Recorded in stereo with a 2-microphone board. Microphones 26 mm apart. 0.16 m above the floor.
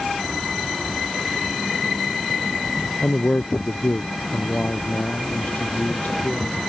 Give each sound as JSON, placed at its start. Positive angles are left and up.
{"t": 3.0, "sound": "a man speaking", "side_deg": 60}